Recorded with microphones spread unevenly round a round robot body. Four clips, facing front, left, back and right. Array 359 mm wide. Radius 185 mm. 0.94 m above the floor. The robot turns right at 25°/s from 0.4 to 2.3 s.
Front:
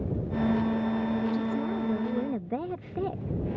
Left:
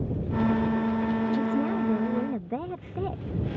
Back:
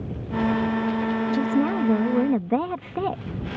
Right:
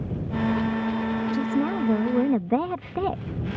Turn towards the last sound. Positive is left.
turn(degrees=-140)